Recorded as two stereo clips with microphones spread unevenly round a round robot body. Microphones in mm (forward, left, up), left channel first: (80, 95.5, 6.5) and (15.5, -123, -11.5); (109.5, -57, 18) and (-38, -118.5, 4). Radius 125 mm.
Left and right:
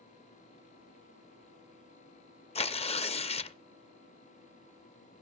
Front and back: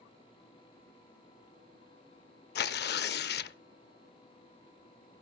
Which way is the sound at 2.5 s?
5° left.